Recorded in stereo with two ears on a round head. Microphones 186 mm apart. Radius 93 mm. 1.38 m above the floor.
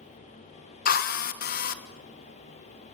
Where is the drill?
45° left (ahead or behind), 1.5 m.